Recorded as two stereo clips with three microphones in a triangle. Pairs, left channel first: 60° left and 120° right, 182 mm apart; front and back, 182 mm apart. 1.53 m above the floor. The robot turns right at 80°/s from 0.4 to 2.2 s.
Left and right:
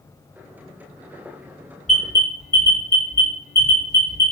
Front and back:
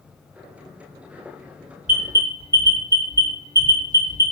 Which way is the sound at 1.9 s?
150° left.